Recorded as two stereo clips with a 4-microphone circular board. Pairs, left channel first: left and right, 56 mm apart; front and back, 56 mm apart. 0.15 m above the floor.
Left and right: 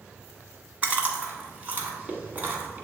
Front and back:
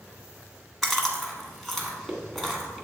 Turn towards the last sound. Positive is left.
turn(degrees=-90)